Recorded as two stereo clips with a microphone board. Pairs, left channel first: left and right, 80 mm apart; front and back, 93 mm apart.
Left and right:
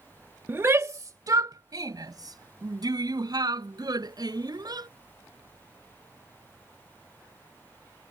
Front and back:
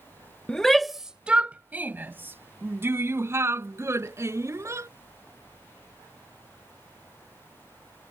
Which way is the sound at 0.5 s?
70° right.